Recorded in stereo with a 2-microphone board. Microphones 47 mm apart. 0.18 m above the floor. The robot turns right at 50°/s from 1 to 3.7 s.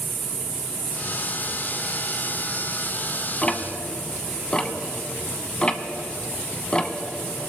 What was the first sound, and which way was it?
Ticking, 30° left (ahead or behind).